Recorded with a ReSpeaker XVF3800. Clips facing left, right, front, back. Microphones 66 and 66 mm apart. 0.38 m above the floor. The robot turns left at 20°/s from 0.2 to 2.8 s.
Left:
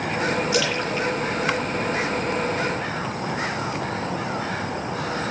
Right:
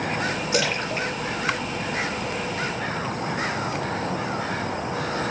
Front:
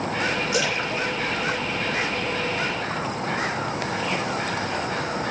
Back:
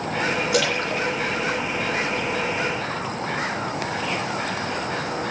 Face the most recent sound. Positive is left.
turn(degrees=170)